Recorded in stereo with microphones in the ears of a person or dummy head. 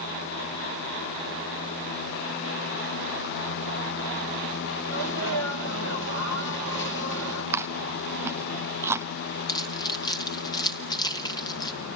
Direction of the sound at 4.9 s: 65° left (ahead or behind).